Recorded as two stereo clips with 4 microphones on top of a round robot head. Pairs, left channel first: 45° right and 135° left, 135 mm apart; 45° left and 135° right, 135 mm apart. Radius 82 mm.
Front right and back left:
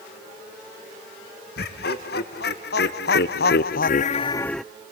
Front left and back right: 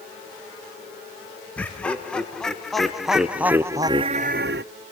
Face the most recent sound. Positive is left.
turn(degrees=-140)